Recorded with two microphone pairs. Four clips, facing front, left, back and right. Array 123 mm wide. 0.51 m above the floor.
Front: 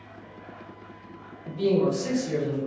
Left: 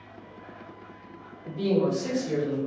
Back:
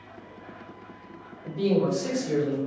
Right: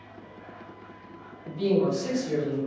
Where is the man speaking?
155° left, 1.9 m.